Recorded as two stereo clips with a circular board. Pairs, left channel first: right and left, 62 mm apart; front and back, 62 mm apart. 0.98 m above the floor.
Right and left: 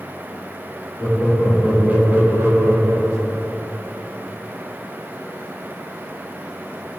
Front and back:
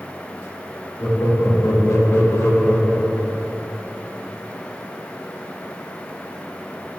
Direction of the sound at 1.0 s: 10° left.